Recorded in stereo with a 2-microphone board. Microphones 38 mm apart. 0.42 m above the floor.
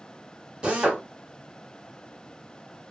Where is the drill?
25° right (ahead or behind), 1.2 m.